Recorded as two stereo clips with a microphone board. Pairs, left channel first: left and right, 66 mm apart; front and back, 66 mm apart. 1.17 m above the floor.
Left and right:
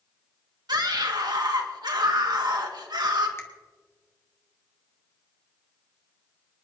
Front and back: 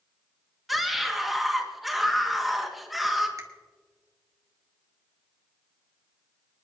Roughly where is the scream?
Right.